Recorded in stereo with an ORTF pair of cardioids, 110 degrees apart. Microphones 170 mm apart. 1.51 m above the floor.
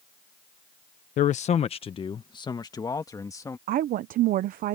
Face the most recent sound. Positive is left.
turn(degrees=-65)